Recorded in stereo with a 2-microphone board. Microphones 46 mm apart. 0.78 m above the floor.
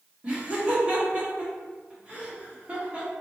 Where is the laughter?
25° right (ahead or behind), 1.2 m.